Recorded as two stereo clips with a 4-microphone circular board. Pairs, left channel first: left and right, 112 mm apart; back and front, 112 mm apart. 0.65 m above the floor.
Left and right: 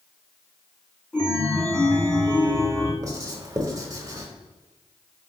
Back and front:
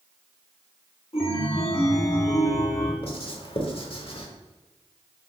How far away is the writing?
About 0.9 m.